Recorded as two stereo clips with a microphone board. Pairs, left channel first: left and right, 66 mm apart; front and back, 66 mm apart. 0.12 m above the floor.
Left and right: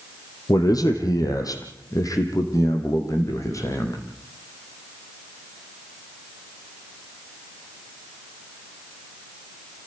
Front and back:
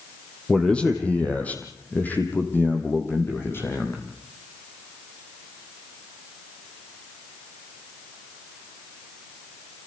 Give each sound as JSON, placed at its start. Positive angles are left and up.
{"t": 0.5, "sound": "a man speaking", "azimuth_deg": 75, "distance_m": 3.5}